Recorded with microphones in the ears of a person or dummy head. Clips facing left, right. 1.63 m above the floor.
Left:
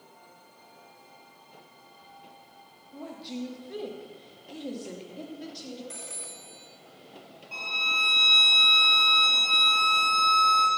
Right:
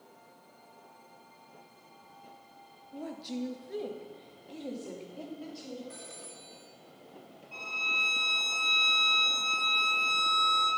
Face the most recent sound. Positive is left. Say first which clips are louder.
# left 4 dB
turn(degrees=70)  # may be behind; listen again after turning